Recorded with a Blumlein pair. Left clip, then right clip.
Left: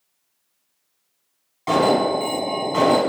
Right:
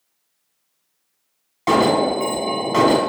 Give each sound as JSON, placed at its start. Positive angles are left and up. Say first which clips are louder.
{"t": 1.7, "sound": "an alarm", "louder": "right 1 dB", "azimuth_deg": -25, "distance_m": 1.4}